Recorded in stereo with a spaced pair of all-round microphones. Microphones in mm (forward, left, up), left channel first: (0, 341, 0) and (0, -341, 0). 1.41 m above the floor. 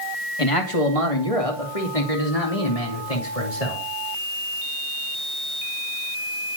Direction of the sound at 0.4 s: 50° left (ahead or behind).